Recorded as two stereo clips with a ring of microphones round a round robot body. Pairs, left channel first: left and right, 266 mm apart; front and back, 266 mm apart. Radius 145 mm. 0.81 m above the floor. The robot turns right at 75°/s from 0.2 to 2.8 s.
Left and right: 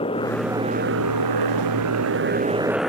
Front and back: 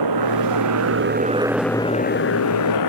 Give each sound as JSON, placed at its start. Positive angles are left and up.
{"t": 0.0, "sound": "a motorcycle", "azimuth_deg": 165}